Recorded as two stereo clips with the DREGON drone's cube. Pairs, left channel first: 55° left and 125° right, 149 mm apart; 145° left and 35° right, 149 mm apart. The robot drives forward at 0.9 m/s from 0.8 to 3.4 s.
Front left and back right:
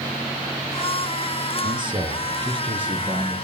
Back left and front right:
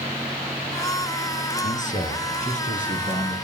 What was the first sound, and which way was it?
A man speaking, straight behind.